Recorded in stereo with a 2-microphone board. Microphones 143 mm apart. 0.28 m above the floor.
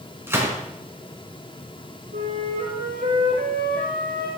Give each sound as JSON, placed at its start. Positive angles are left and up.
{"t": 0.3, "sound": "a gunshot", "side_deg": -15, "distance_m": 3.5}
{"t": 2.1, "sound": "a flute", "side_deg": -85, "distance_m": 5.0}